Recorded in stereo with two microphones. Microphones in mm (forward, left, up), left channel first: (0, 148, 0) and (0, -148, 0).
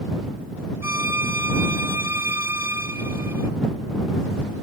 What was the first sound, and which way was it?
A violin, 10° right (ahead or behind).